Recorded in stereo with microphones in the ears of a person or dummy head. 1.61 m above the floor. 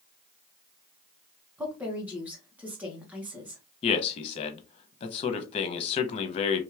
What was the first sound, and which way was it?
A woman speaking, 15° right (ahead or behind).